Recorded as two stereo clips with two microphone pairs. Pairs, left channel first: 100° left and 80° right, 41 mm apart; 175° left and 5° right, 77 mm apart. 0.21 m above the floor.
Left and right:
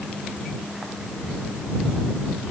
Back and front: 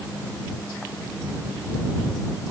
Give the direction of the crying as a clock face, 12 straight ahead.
I don't hear crying.